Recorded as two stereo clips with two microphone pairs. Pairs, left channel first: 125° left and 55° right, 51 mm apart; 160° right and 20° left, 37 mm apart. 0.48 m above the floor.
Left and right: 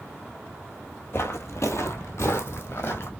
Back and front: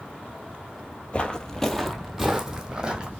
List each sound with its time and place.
1.1 s footsteps: 145° left, 0.7 m; by 3.1 s 85° left, 1.3 m